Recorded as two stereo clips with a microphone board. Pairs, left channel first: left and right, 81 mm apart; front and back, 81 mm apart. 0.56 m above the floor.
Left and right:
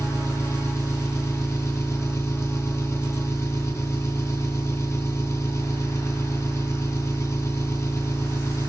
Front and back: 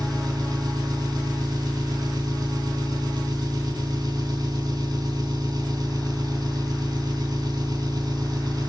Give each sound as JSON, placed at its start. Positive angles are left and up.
{"t": 0.0, "sound": "an engine running", "azimuth_deg": 145, "distance_m": 3.0}